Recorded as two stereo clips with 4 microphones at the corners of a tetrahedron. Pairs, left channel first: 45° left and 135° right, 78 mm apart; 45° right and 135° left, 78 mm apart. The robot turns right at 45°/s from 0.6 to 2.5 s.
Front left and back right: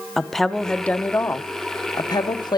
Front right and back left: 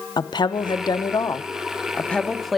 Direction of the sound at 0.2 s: 40° right.